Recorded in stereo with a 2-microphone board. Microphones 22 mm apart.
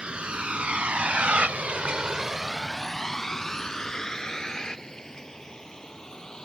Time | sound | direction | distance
0.0 | a vehicle | 45° right (ahead or behind) | ?